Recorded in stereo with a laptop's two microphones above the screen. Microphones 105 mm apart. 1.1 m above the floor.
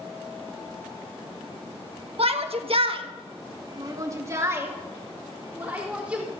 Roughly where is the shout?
Right.